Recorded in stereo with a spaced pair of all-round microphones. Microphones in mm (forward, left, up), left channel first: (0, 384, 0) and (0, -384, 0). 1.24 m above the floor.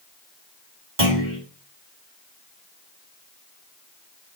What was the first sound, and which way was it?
A clunk, 40° right (ahead or behind).